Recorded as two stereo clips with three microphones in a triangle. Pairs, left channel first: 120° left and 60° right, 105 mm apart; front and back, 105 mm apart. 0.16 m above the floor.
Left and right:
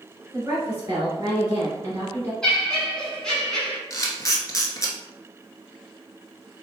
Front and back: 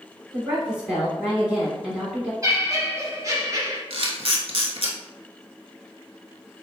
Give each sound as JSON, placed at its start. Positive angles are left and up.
{"t": 0.3, "sound": "a woman speaking", "azimuth_deg": -105, "distance_m": 1.3}
{"t": 2.4, "sound": "laughter", "azimuth_deg": -160, "distance_m": 1.4}
{"t": 3.9, "sound": "a camera shutter", "azimuth_deg": 175, "distance_m": 0.9}